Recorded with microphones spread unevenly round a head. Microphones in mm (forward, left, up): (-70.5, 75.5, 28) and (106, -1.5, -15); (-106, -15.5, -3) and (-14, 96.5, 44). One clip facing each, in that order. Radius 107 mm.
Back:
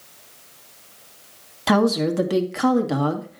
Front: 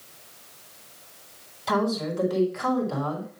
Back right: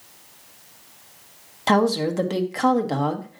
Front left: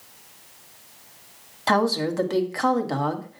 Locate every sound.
1.7 s a woman speaking: 165° left, 1.4 m